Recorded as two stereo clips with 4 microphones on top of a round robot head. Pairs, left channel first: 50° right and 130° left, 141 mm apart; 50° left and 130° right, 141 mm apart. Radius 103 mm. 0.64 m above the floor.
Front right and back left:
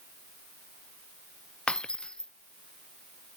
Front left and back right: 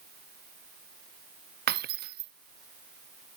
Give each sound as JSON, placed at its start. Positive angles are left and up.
{"t": 1.7, "sound": "breaking glass", "azimuth_deg": -130}